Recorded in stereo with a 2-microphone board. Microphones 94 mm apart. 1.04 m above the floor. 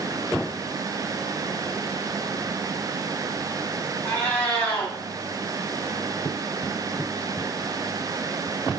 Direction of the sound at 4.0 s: 20° left (ahead or behind).